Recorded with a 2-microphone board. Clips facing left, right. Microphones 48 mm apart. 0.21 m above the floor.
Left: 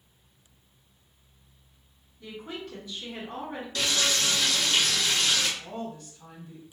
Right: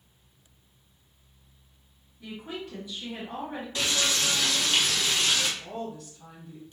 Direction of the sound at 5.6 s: 5° right (ahead or behind).